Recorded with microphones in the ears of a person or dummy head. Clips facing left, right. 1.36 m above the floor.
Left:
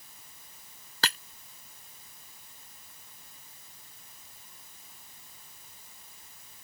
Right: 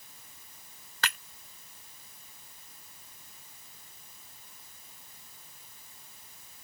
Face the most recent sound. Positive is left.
turn(degrees=30)  # may be behind; listen again after turning